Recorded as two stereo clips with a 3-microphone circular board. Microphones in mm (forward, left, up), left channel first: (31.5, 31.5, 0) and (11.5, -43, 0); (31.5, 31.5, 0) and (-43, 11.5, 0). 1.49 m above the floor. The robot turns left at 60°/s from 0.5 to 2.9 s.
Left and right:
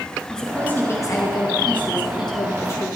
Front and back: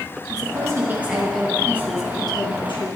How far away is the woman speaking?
About 2 m.